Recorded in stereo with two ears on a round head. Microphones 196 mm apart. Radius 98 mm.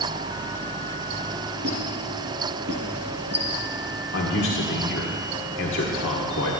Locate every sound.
1.6 s a squeak: 50° right (ahead or behind), 5.5 m
4.1 s a man speaking: 55° left (ahead or behind), 1.5 m